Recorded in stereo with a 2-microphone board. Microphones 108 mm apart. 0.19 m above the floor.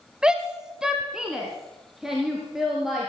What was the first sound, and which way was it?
A shout, 5° right (ahead or behind).